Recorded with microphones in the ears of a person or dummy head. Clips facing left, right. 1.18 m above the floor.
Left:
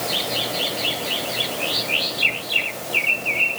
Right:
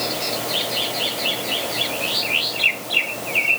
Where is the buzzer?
I don't hear a buzzer.